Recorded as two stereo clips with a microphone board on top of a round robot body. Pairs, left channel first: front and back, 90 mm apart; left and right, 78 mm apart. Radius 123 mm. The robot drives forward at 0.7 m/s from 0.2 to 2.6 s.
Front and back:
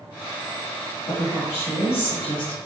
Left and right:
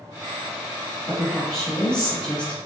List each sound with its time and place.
1.1 s a woman speaking: 10° left, 2.0 m; by 2.6 s 15° left, 1.0 m